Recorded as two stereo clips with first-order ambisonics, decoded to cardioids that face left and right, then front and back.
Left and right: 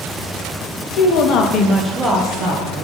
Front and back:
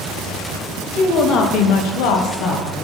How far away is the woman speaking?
About 0.8 m.